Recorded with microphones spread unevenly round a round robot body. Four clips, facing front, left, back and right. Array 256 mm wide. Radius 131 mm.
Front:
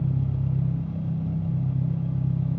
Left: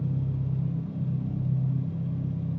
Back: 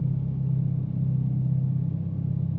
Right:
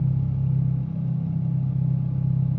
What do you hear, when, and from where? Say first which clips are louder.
0.0 s an engine running: right 4 dB, front 2 dB; 5° right, 1.1 m